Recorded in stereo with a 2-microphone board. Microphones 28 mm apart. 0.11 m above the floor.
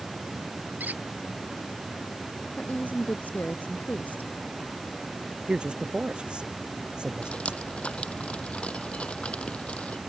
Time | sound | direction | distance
0.8 | a squeak | 80° right | ?
2.6 | a woman speaking | 70° left (ahead or behind) | ?
5.5 | a man speaking | 35° right (ahead or behind) | ?
7.2 | dripping | 45° left (ahead or behind) | ?